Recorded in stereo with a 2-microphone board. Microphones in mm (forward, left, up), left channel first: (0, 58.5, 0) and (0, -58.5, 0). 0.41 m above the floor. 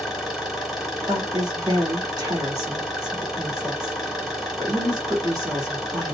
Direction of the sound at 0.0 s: Centre (ahead or behind).